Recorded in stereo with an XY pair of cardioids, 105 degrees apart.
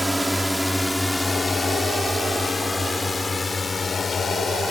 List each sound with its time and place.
0.0 s a drone: 10° right; by 4.7 s 25° left